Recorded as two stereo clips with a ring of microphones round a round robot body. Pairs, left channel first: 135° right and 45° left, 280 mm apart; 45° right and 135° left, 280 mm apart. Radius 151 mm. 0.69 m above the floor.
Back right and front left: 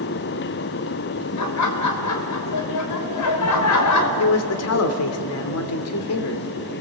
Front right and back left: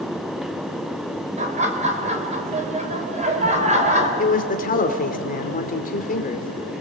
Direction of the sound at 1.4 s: 160° right.